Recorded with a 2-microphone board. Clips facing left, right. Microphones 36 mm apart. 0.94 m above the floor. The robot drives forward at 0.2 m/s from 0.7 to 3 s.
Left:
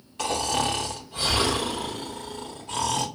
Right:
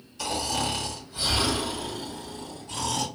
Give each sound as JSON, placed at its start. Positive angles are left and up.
{"t": 0.2, "sound": "snoring", "side_deg": 55, "distance_m": 1.1}